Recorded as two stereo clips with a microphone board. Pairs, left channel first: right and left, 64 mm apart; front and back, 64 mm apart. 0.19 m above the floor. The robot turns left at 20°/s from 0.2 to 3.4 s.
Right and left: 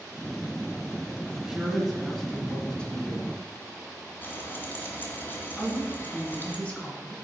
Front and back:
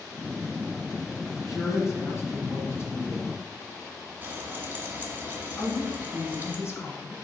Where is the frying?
130° right, 1.6 m.